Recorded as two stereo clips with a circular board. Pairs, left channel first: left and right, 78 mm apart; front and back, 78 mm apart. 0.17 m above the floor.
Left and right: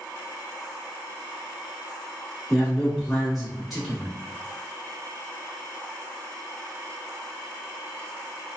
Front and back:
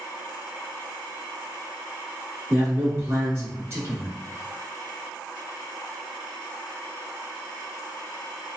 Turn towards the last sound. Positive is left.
turn(degrees=180)